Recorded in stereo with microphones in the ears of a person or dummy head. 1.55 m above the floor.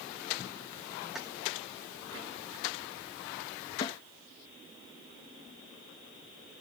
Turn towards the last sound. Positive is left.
turn(degrees=25)  # may be behind; listen again after turning